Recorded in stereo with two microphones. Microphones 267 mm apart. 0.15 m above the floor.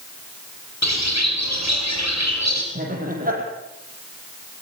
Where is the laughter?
30° right (ahead or behind), 6.5 m.